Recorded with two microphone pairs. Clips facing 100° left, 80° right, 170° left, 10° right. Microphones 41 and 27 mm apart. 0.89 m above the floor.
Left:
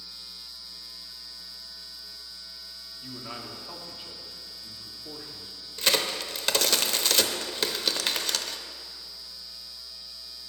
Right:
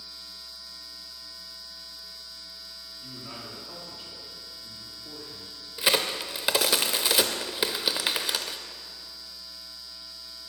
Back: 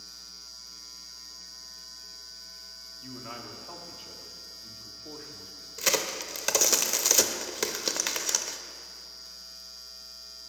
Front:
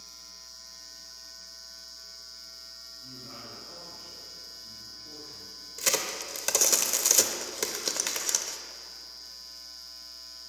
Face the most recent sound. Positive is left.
turn(degrees=-135)